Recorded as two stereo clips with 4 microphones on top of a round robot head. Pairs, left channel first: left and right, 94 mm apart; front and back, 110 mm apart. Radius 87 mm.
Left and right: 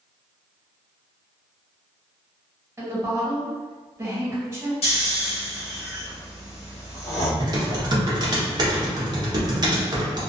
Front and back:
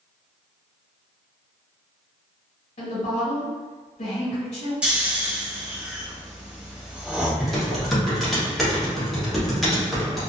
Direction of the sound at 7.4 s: 90° right.